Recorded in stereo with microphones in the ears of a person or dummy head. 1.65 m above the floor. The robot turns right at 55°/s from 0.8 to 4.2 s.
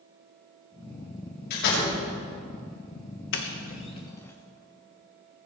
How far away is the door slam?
About 7 m.